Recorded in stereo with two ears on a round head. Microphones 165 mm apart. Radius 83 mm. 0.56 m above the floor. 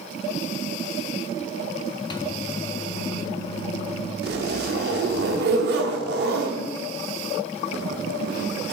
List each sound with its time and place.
2.1 s a microwave: 25° left (ahead or behind), 0.7 m
4.2 s a zipper: 60° right (ahead or behind), 1.0 m